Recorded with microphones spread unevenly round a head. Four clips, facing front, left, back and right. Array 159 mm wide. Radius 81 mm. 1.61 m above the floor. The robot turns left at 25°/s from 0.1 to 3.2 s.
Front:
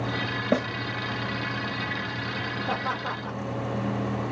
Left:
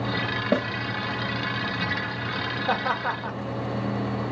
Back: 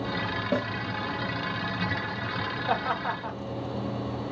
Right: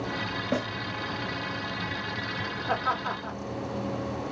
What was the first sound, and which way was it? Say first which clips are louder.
A snare drum: left 5 dB, front 4 dB; 50° left.